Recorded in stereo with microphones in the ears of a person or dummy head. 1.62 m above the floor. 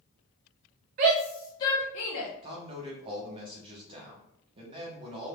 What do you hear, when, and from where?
1.0 s a shout: 35° right (ahead or behind), 0.6 m; by 2.3 s 55° left (ahead or behind), 0.9 m
2.4 s a man speaking: 30° right (ahead or behind), 0.9 m